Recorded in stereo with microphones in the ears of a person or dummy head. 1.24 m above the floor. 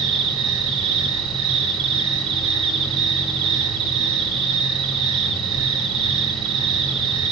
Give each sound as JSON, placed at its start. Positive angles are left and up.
{"t": 0.0, "sound": "an insect", "side_deg": -40, "distance_m": 1.6}